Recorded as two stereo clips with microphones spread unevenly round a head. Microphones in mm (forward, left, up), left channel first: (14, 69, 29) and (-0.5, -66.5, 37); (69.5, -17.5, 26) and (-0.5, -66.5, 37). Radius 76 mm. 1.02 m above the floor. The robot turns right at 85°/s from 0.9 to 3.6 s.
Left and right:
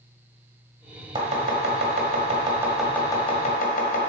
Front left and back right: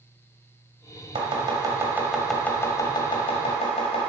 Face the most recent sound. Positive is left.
turn(degrees=55)